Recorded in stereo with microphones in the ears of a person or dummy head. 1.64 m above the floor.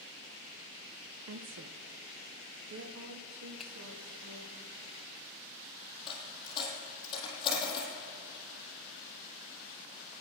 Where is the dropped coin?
25° left (ahead or behind), 5.5 m.